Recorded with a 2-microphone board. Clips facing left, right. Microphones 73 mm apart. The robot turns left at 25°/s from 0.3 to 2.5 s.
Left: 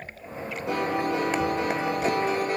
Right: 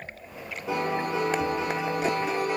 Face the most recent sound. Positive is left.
turn(degrees=40)